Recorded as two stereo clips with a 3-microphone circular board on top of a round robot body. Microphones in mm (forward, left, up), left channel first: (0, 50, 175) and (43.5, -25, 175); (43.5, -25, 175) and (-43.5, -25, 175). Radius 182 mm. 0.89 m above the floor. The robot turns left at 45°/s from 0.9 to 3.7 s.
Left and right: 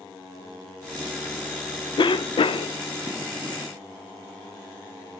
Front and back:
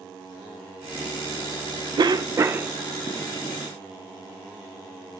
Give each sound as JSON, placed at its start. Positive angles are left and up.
{"t": 2.0, "sound": "a cough", "azimuth_deg": 145, "distance_m": 0.5}